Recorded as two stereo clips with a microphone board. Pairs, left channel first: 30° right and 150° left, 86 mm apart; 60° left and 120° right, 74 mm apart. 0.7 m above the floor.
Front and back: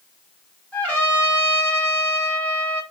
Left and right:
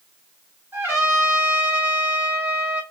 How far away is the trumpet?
About 1.2 m.